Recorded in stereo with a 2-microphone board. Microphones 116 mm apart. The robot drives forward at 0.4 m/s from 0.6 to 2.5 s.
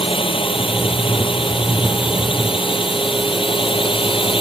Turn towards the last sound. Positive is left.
turn(degrees=50)  # may be behind; listen again after turning